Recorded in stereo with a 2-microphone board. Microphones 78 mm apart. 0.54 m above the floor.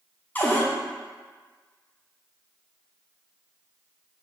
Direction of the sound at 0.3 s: 25° left (ahead or behind).